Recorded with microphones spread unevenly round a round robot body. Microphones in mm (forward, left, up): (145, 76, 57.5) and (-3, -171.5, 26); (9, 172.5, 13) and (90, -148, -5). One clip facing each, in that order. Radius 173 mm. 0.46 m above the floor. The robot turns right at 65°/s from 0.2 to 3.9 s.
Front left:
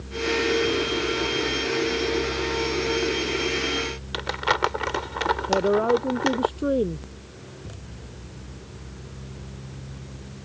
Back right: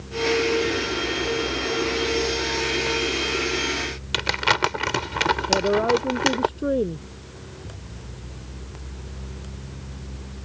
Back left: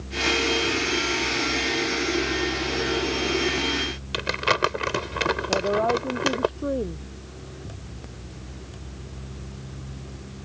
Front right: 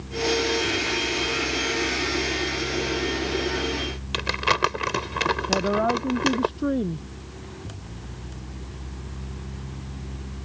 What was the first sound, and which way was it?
Crumpling, 155° right.